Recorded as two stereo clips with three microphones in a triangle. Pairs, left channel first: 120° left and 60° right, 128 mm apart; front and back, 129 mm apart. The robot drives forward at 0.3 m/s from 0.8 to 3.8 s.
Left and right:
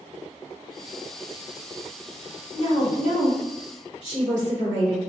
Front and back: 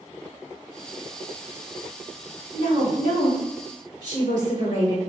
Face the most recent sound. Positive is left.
turn(degrees=165)